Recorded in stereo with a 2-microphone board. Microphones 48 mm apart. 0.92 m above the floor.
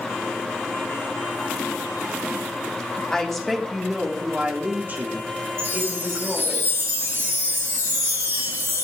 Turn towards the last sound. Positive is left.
turn(degrees=-60)  # may be behind; listen again after turning